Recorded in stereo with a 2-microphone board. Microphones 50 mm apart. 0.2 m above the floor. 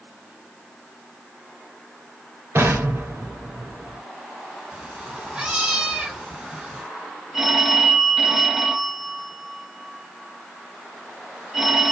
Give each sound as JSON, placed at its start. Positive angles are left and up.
{"t": 2.5, "sound": "an explosion", "side_deg": -65, "distance_m": 2.0}
{"t": 4.7, "sound": "a cat meowing", "side_deg": -20, "distance_m": 1.0}
{"t": 7.3, "sound": "a phone ringing", "side_deg": -10, "distance_m": 1.0}